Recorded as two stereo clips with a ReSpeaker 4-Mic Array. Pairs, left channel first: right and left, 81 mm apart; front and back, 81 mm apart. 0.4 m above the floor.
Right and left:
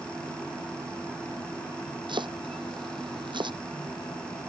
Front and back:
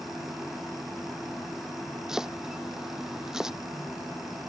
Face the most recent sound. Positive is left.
turn(degrees=95)